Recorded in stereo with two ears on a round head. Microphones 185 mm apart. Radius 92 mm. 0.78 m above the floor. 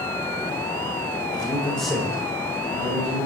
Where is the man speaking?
20° left (ahead or behind), 0.9 m; by 3.3 s 45° right (ahead or behind), 1.2 m.